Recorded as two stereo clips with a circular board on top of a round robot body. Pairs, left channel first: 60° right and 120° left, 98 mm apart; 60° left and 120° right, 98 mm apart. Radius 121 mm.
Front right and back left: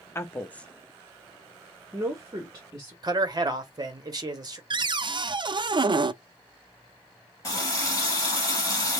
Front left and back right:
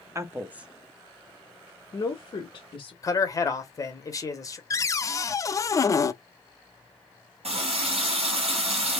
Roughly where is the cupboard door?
Left.